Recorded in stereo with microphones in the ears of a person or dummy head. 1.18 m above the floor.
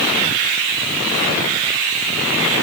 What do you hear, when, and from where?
Only background noise.